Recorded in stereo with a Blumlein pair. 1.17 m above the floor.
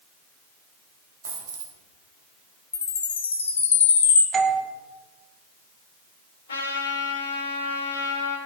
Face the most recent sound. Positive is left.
turn(degrees=65)